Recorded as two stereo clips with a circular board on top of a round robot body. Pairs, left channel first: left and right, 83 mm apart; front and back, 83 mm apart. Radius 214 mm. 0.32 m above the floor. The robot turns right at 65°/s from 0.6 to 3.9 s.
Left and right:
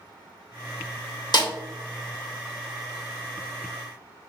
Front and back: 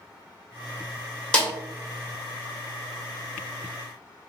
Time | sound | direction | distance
1.3 | a snare drum | 75° left | 1.6 m